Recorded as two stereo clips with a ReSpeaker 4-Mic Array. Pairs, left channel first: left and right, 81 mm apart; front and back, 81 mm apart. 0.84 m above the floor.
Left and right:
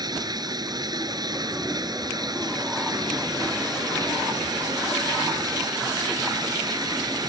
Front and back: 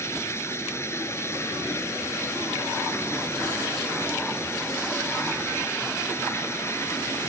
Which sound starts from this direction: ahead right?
Running water, at 0.0 s.